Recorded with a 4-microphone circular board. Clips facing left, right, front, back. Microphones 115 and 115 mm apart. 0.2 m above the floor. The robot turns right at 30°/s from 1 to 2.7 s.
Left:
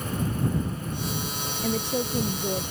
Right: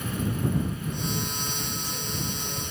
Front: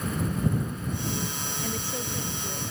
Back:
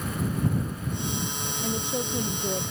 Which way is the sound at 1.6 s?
100° left.